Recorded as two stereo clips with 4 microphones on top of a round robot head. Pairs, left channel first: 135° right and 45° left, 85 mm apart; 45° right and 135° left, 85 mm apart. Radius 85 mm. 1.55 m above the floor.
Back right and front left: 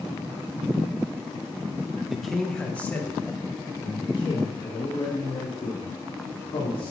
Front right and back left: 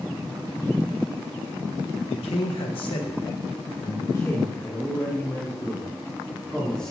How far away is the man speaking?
About 1.8 m.